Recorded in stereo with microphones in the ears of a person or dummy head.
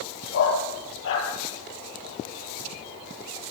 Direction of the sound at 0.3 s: 65° left (ahead or behind).